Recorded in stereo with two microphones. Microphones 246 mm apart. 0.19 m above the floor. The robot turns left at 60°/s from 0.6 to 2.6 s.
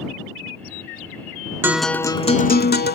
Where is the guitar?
170° right; by 3.0 s 135° left.